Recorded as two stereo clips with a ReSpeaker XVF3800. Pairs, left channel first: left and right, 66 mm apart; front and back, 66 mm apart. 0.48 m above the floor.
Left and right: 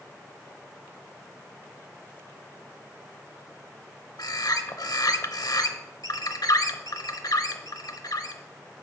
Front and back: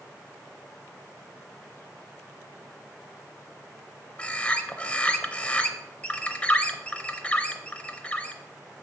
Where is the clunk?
No clunk in this recording.